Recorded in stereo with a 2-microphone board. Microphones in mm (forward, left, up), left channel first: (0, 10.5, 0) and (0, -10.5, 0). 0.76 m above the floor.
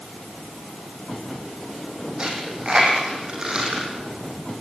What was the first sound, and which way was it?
A dropped coin, 35° right (ahead or behind).